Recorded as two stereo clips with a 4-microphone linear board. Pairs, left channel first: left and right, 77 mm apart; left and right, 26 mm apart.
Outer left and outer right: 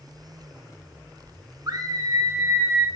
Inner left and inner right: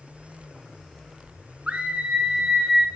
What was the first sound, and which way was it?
A scream, 50° right (ahead or behind).